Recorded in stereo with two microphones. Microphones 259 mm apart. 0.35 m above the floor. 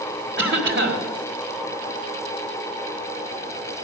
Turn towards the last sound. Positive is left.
turn(degrees=-50)  # may be behind; listen again after turning